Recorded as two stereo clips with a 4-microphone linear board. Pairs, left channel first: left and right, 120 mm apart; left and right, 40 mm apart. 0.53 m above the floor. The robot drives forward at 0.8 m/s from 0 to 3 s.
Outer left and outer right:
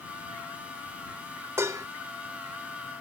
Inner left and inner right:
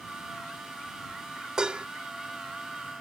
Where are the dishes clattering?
20° right (ahead or behind); by 1.9 s 30° right (ahead or behind).